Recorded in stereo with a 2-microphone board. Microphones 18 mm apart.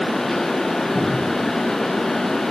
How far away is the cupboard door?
About 10 m.